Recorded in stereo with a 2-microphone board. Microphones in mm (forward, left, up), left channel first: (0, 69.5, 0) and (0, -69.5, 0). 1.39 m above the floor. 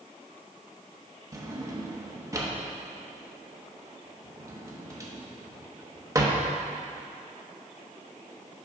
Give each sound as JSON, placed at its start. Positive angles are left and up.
{"t": 1.3, "sound": "a drawer", "side_deg": -25, "distance_m": 0.8}